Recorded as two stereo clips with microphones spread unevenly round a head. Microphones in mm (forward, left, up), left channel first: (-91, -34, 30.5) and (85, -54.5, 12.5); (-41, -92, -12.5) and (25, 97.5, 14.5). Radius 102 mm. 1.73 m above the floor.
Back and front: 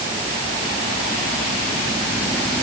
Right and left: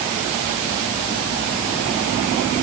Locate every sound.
Only background noise.